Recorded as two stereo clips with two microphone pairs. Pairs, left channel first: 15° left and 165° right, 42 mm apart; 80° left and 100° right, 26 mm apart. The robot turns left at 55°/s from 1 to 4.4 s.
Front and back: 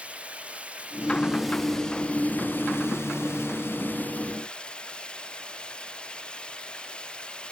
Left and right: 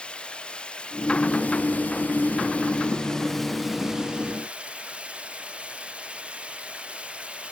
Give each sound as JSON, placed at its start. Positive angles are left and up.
{"t": 0.0, "sound": "running water", "azimuth_deg": 135}